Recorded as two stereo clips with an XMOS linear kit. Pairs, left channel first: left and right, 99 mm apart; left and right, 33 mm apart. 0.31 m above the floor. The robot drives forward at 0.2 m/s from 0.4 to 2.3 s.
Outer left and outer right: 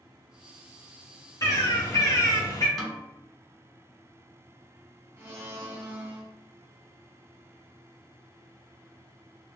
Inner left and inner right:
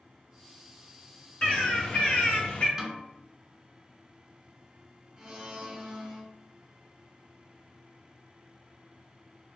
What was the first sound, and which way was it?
A bird, 35° left (ahead or behind).